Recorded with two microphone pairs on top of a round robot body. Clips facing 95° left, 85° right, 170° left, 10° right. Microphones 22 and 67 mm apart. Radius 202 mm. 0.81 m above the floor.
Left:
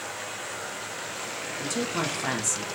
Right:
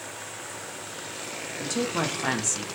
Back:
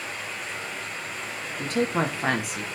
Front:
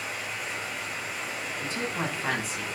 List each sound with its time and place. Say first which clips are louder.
0.0 s running water: left 3 dB, even; 75° left, 2.5 m
1.6 s a woman speaking: right 2 dB, back 8 dB; 160° right, 1.9 m